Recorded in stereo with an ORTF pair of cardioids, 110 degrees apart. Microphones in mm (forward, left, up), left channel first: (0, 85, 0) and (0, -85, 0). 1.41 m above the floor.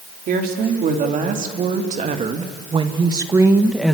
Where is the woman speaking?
60° right, 4 m; by 4.0 s straight ahead, 1.6 m.